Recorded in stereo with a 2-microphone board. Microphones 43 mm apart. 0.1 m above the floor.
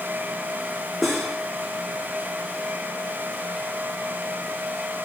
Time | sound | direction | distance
1.0 | cutlery clinking | centre (ahead or behind) | 3.5 m